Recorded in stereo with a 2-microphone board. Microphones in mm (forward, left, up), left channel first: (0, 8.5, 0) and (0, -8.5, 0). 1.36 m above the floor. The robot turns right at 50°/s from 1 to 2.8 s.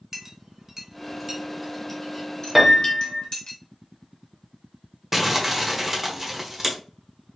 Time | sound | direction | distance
0.1 | a clink | 25° right (ahead or behind) | 1.1 m
2.5 | a piano | 10° right (ahead or behind) | 0.9 m
5.1 | crumpling | 20° right (ahead or behind) | 1.0 m